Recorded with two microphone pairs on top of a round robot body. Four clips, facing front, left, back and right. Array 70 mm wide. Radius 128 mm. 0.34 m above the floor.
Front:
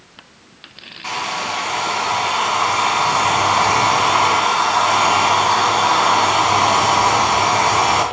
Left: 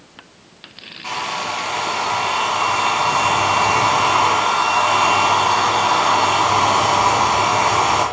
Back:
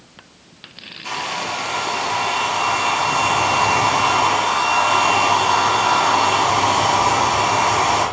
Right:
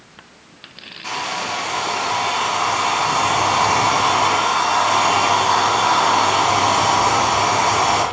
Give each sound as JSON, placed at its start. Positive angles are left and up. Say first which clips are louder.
{"t": 1.0, "sound": "a hair dryer", "louder": "left 1 dB, front 2 dB", "azimuth_deg": 15, "distance_m": 2.5}